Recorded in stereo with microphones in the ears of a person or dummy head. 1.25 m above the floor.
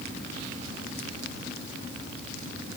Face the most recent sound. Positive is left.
No sound to turn to.